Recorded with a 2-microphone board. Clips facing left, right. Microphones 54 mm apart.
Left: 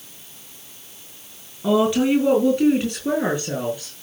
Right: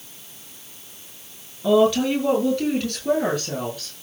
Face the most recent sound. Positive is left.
turn(degrees=20)  # may be behind; listen again after turning